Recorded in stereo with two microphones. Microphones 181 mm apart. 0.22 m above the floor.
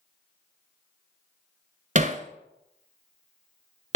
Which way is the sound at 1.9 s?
45° right (ahead or behind).